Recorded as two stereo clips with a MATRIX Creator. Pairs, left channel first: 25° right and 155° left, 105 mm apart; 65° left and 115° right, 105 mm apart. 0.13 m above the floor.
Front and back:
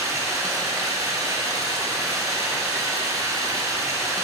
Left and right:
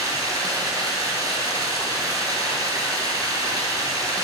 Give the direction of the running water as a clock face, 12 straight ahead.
5 o'clock.